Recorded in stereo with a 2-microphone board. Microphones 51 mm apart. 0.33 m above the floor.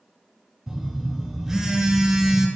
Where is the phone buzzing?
10° right (ahead or behind), 2 m.